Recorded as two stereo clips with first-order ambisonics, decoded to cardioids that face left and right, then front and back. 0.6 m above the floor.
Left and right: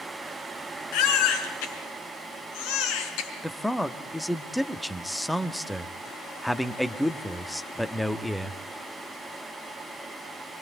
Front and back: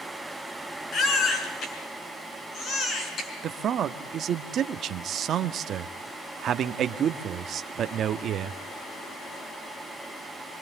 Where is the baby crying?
60° left, 5 m.